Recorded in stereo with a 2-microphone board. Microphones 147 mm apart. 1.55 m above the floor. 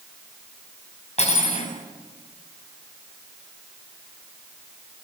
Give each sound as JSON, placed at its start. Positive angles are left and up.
{"t": 1.2, "sound": "cutlery clinking", "side_deg": 50, "distance_m": 5.5}